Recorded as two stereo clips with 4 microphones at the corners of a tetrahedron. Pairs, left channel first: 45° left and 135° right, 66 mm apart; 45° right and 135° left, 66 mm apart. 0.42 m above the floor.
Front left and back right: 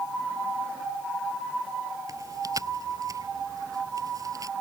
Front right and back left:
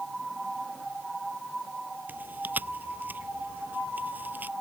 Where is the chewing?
160° right.